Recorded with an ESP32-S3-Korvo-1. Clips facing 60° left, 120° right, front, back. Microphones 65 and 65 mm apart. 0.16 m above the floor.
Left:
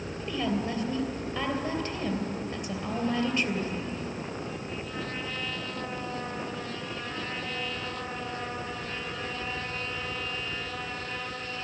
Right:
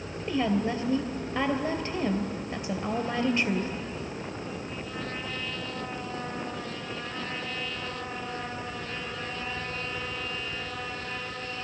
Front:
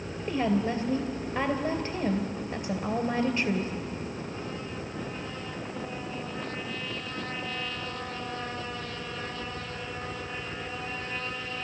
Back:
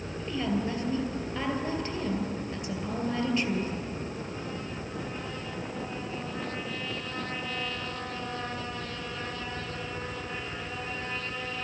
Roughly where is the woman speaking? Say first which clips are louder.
Right 4 dB, front 4 dB; ahead right.